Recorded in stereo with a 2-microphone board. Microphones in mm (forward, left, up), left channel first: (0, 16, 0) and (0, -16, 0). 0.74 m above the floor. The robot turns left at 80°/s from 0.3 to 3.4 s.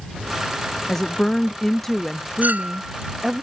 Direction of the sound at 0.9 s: 20° left (ahead or behind).